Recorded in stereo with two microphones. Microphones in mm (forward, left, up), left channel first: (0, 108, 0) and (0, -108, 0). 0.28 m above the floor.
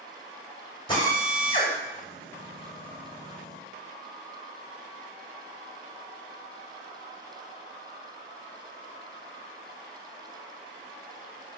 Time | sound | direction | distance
0.9 | a drill | 25° left (ahead or behind) | 1.6 m